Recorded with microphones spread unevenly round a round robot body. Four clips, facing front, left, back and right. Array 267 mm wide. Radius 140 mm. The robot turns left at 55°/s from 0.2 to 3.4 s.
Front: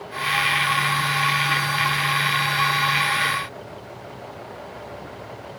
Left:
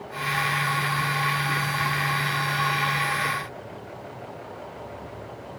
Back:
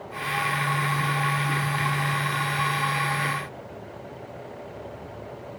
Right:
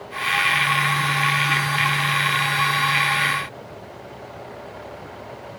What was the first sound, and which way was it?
Only background noise.